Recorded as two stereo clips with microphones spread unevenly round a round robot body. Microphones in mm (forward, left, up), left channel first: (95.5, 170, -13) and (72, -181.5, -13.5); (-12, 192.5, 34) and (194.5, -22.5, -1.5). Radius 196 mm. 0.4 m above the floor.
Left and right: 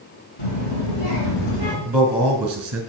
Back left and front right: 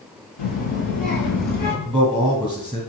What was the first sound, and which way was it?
A child speaking, 130° left.